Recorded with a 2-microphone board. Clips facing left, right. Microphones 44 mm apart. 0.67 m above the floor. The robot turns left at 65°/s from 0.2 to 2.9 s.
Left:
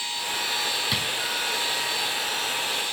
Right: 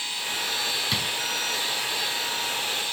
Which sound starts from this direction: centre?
A drawer, at 0.9 s.